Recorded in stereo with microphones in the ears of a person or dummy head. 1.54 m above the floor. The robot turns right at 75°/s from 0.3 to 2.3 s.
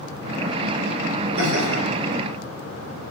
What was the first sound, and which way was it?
Laughter, 85° right.